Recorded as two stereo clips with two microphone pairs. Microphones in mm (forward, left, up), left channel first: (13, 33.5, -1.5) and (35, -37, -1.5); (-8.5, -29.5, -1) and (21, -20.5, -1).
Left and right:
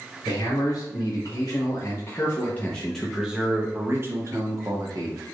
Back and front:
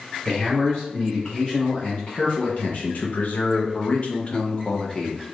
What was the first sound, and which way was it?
A man speaking, 135° left.